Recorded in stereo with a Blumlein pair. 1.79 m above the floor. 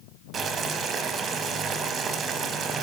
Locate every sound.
0.3 s boiling: 25° right, 0.9 m